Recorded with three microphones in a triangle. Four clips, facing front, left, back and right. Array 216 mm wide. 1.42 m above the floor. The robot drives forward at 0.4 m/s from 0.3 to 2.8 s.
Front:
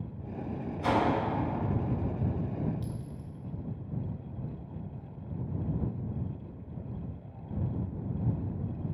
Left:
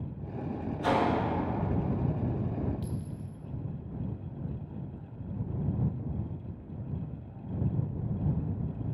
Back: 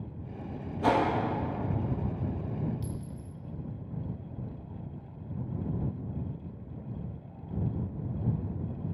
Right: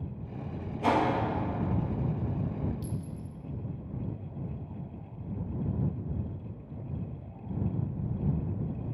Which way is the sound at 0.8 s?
155° right.